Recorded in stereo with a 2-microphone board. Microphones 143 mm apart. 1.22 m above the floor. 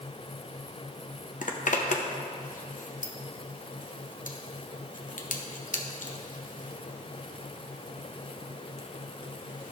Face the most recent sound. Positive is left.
turn(degrees=65)  # may be behind; listen again after turning